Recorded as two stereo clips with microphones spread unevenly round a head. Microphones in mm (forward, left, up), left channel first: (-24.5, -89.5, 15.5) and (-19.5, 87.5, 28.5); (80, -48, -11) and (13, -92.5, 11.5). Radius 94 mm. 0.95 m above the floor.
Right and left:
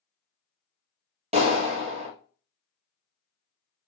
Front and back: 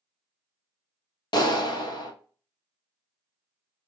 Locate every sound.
1.3 s a clap: 30° left, 1.0 m